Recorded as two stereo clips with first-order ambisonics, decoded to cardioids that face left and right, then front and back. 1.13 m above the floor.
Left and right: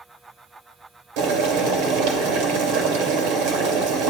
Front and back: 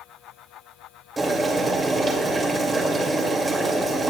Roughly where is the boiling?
Right.